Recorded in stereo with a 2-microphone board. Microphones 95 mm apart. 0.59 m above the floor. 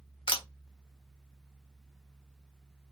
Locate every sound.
0.3 s a camera shutter: 60° left (ahead or behind), 1.0 m